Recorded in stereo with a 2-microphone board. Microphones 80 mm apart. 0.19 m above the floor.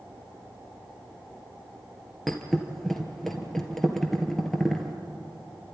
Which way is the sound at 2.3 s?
5° left (ahead or behind).